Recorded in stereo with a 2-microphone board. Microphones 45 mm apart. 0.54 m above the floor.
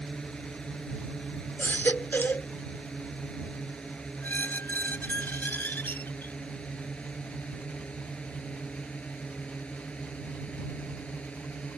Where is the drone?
15° left (ahead or behind); by 11.8 s 25° left (ahead or behind).